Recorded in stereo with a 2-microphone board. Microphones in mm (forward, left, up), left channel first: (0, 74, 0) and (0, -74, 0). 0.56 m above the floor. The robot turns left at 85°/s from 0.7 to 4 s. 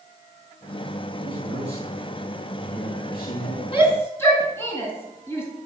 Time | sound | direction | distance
1.2 | a man speaking | 100° right | 8 m
3.7 | a shout | 40° left (ahead or behind) | 5 m